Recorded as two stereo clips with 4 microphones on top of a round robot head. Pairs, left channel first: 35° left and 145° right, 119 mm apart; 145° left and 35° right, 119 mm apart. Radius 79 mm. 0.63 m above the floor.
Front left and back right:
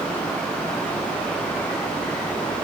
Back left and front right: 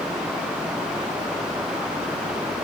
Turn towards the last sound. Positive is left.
No sound to turn to.